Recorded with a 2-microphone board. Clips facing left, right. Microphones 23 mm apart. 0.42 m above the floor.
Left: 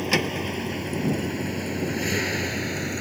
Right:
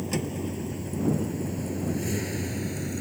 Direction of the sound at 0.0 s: 55° left (ahead or behind).